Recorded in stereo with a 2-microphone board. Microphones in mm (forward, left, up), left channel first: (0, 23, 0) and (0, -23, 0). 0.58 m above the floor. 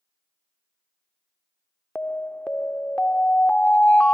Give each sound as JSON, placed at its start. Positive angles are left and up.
{"t": 1.9, "sound": "an alarm", "side_deg": 30}